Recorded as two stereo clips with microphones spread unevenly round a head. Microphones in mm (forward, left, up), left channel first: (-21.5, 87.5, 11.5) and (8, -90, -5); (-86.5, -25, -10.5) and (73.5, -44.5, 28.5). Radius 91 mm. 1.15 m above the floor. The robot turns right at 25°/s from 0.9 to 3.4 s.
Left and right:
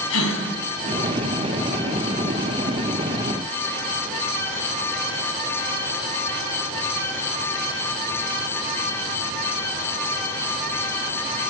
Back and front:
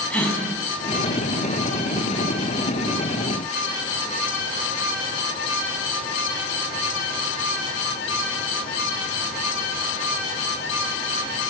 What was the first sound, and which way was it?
A gasp, 90° left.